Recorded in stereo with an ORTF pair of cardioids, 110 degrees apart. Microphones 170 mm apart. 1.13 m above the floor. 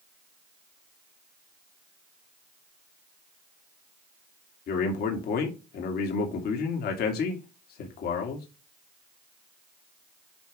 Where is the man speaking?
65° left, 2.5 m.